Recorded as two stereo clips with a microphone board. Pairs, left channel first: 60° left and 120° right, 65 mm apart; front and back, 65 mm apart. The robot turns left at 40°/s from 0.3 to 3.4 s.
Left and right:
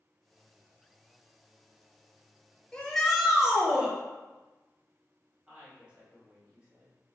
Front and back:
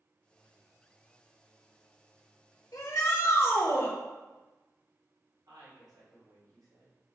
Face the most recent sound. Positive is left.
turn(degrees=165)